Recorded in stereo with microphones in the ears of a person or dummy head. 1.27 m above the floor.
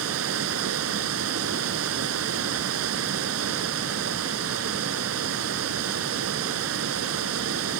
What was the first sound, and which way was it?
Running water, 80° right.